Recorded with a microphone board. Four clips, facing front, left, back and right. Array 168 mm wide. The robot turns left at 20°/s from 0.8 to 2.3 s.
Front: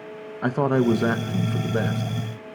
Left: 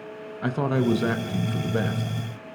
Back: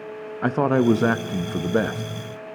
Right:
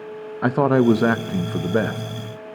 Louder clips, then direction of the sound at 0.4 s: Right 7 dB, back 2 dB; 105° right.